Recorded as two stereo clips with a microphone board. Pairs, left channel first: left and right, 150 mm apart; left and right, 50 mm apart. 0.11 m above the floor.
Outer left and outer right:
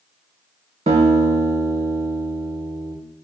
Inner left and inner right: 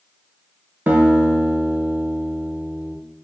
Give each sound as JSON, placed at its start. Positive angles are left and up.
{"t": 0.9, "sound": "a guitar", "side_deg": -45, "distance_m": 0.8}